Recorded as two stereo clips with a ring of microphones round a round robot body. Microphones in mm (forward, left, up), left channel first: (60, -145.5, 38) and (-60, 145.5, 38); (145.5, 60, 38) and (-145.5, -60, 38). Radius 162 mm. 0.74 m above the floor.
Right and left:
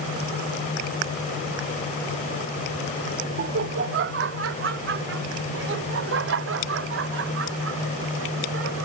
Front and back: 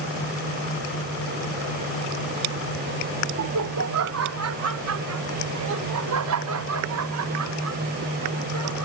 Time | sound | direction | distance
3.4 | laughter | 165° left | ?